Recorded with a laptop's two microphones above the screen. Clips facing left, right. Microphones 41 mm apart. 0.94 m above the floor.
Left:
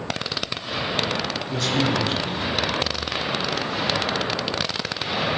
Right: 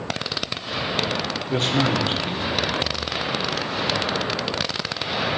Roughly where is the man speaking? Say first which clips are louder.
Right 2 dB; right.